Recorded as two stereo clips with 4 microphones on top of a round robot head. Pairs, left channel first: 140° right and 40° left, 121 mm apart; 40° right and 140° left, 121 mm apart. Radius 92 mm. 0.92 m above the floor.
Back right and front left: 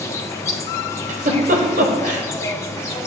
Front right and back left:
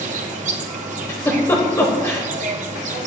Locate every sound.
0.0 s an insect: 155° left, 1.1 m
1.1 s a giggle: 25° left, 1.2 m